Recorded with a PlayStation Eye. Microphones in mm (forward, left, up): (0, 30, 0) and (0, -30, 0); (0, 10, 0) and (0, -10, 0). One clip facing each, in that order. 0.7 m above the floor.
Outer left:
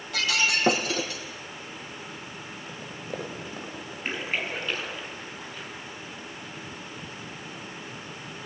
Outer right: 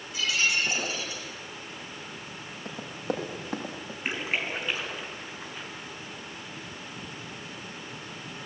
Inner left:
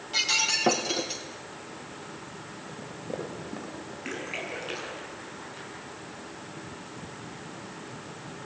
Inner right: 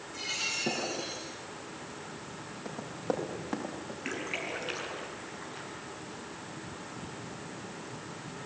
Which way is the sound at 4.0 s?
10° right (ahead or behind).